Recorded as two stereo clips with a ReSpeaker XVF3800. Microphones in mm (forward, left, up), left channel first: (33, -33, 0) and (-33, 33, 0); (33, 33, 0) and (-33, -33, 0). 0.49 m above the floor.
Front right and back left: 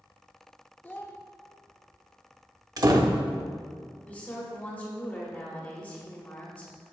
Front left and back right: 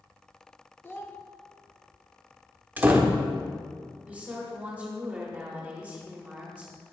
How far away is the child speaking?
About 0.6 m.